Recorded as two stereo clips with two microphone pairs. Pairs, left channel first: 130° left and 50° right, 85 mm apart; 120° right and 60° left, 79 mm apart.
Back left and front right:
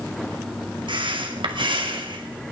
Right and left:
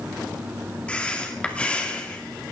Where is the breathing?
45° right, 2.5 m.